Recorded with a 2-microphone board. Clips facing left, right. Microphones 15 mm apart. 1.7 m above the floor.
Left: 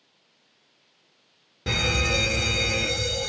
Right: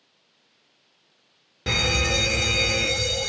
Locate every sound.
1.7 s a fire alarm: 20° right (ahead or behind), 0.7 m